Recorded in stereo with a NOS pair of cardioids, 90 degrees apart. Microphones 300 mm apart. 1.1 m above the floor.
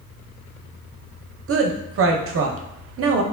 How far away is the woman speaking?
About 0.6 m.